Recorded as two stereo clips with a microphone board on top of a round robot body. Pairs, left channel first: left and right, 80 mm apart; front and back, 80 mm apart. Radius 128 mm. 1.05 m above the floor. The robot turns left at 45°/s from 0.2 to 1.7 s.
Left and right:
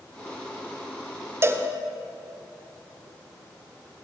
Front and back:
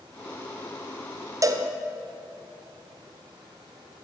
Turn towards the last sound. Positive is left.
turn(degrees=-155)